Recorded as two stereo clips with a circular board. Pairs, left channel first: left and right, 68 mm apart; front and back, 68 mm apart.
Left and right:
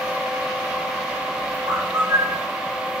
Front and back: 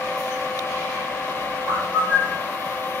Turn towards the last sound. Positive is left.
turn(degrees=-70)